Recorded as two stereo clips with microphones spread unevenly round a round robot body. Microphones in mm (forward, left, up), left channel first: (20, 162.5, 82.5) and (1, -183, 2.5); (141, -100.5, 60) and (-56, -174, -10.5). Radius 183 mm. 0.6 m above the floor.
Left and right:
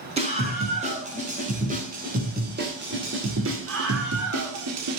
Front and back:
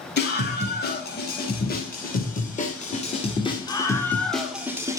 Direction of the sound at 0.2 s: 25° right.